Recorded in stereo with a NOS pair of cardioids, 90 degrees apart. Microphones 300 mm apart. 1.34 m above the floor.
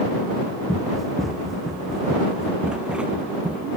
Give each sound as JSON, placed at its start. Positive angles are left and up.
{"t": 0.7, "sound": "running footsteps", "azimuth_deg": 0}